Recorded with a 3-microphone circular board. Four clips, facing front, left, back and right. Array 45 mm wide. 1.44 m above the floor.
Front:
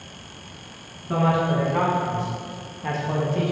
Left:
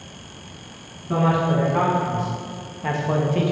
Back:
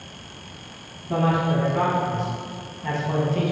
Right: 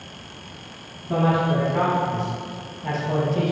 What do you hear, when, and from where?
1.1 s a man speaking: 30° left, 1.4 m; by 3.5 s 115° left, 0.6 m